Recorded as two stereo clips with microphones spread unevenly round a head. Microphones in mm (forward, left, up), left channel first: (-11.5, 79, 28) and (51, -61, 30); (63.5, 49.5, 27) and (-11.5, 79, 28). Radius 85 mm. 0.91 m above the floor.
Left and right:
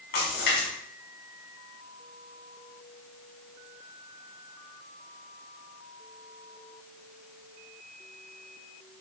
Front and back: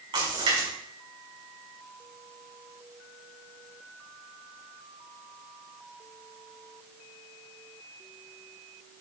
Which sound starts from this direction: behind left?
A splash, at 0.1 s.